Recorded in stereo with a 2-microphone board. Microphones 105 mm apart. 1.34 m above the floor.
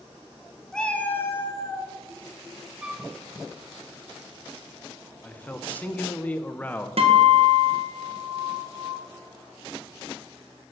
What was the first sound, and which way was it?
A cat meowing, 5° left (ahead or behind).